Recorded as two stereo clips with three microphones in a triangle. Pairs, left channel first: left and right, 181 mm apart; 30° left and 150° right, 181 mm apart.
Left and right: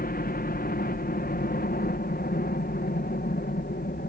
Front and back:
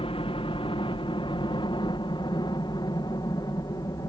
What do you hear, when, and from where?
0.0 s a helicopter: 80° left; by 4.1 s 95° left